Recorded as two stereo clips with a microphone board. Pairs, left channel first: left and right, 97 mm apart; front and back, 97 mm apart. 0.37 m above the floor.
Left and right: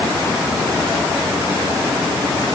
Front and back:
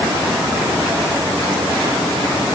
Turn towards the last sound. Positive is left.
No sound to turn to.